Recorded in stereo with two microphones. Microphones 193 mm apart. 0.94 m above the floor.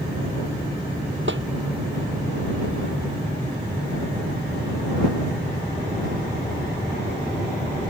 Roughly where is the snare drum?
Right.